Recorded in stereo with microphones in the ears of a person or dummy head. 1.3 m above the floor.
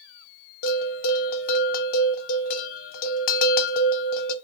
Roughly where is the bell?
Left.